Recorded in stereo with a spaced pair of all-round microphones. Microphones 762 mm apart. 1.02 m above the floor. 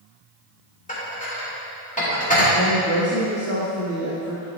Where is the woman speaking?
20° left (ahead or behind), 1.2 m.